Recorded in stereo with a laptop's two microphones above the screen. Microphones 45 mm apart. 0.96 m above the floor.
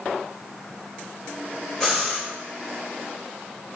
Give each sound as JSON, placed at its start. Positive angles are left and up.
{"t": 1.8, "sound": "breathing", "side_deg": 5, "distance_m": 1.4}